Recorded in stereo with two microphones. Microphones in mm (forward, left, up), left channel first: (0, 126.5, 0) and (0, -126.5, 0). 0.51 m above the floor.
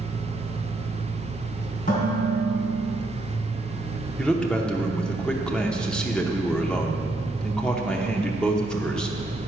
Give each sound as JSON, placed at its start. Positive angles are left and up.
{"t": 0.0, "sound": "an engine running", "side_deg": -45, "distance_m": 1.0}
{"t": 1.9, "sound": "dishes clattering", "side_deg": 35, "distance_m": 3.0}
{"t": 4.2, "sound": "a man speaking", "side_deg": 5, "distance_m": 0.7}